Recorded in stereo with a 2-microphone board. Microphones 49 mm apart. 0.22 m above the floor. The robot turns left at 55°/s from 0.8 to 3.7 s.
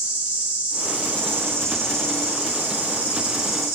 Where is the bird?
I don't hear a bird.